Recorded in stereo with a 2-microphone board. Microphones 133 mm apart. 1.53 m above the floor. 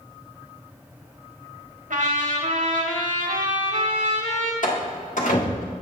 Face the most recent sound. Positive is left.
turn(degrees=75)  # may be behind; listen again after turning